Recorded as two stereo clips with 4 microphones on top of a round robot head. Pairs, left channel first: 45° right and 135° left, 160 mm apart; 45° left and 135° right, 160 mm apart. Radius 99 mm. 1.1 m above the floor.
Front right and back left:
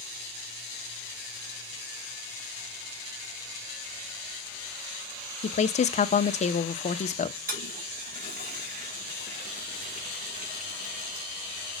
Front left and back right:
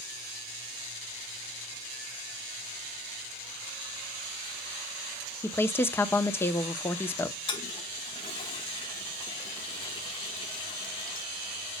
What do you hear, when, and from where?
5.4 s a woman speaking: 25° right, 0.9 m
7.5 s a toilet flushing: 105° left, 1.5 m